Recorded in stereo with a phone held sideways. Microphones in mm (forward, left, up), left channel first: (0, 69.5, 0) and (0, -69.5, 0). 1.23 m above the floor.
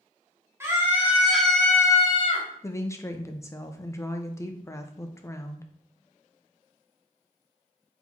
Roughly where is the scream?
Centre.